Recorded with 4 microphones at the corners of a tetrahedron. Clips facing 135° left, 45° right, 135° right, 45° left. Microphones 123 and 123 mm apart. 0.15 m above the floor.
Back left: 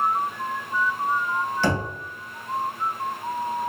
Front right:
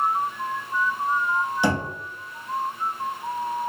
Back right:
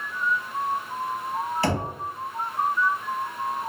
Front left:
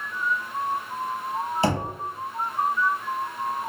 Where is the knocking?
10° left, 0.8 m.